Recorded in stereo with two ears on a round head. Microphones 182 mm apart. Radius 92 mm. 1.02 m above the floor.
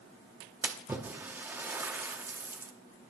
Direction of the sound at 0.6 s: 10° right (ahead or behind).